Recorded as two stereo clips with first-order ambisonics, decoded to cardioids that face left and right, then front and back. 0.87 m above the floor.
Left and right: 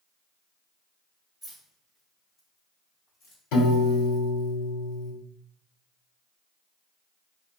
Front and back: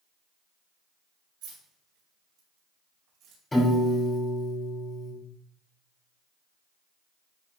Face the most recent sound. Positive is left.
turn(degrees=80)